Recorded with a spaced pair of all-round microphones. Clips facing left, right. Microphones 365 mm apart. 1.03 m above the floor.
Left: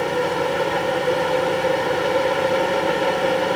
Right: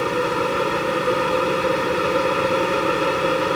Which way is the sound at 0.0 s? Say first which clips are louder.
Even; 15° right (ahead or behind).